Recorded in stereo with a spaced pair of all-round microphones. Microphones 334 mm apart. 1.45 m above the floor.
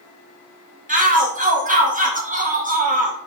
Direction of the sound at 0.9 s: 25° right (ahead or behind).